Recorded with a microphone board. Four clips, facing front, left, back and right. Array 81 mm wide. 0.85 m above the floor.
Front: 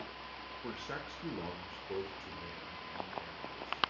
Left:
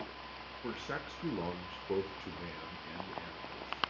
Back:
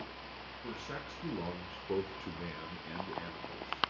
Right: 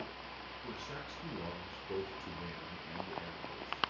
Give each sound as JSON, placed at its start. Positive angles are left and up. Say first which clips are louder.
{"t": 0.6, "sound": "a man speaking", "louder": "left 6 dB, even", "azimuth_deg": 70, "distance_m": 0.9}